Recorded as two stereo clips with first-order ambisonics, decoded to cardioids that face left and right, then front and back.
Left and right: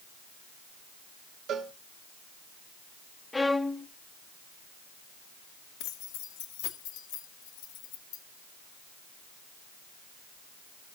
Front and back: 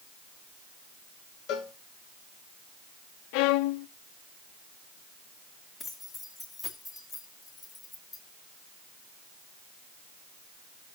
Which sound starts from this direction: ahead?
A violin, at 3.3 s.